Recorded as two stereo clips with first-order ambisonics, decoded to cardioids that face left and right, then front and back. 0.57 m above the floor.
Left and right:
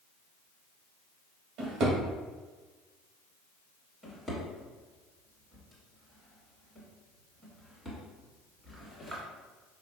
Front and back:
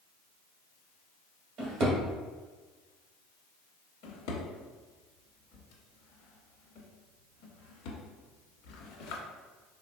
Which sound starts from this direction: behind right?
A drawer, at 1.6 s.